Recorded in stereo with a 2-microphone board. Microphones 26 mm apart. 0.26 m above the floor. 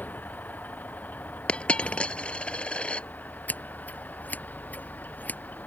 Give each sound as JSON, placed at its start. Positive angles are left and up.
{"t": 0.0, "sound": "a vehicle", "side_deg": 80}
{"t": 1.5, "sound": "a dropped coin", "side_deg": 50}
{"t": 3.5, "sound": "scissors", "side_deg": 75}